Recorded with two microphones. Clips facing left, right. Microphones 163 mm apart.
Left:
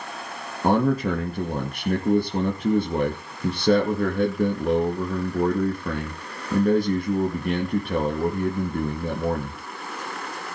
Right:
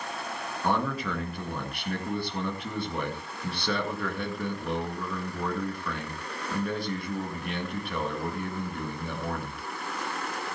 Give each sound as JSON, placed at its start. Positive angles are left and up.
{"t": 0.6, "sound": "a man speaking", "side_deg": 45, "distance_m": 2.5}